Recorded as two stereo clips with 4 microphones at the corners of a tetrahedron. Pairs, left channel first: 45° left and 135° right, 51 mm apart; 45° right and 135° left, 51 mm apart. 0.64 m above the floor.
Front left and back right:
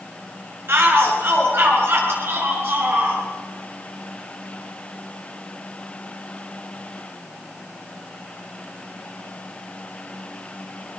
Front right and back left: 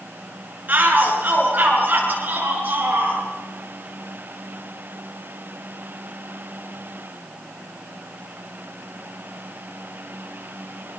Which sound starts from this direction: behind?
A shout, at 0.7 s.